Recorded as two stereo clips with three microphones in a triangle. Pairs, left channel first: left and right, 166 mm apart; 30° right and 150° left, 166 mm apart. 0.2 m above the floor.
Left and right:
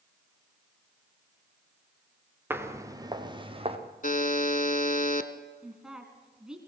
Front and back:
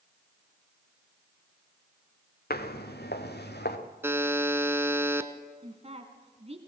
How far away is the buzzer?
About 1.2 m.